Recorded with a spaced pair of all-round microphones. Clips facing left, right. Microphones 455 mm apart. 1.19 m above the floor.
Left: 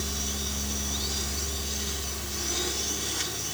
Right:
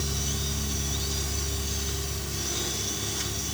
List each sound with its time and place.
0.0 s a fan: 45° right (ahead or behind), 9 m